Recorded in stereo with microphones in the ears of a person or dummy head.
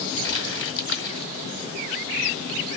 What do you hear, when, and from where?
0.2 s crumpling: 70° left (ahead or behind), 2.5 m